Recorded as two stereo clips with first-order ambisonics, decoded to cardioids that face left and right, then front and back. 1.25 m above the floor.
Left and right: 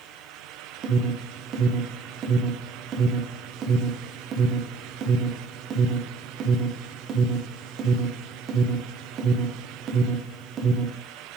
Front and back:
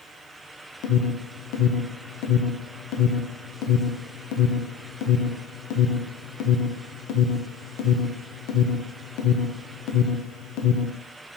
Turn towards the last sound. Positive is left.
turn(degrees=-30)